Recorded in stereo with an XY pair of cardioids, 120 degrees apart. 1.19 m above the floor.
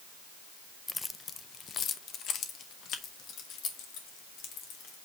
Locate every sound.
0.9 s keys jangling: 15° left, 0.5 m; by 5.0 s 75° left, 2.5 m